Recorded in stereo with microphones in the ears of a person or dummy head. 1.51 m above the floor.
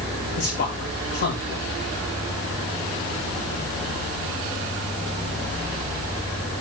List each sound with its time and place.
0.4 s a man speaking: 50° left (ahead or behind), 2 m